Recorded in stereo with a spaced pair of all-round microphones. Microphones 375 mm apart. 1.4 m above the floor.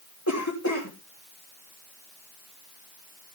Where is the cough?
50° left (ahead or behind), 3.5 m.